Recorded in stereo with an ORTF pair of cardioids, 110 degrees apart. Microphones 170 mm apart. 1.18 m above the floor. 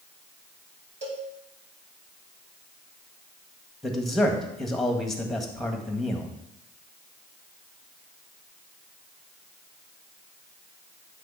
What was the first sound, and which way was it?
A cowbell, 40° right.